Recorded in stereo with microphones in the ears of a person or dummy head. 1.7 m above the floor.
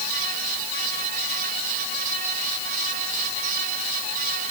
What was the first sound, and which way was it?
Only background noise.